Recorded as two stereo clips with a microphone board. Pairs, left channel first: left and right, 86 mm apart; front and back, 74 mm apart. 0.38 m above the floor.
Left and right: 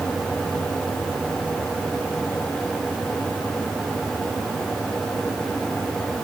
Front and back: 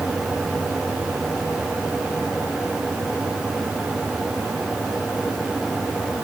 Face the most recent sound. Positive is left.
No sound to turn to.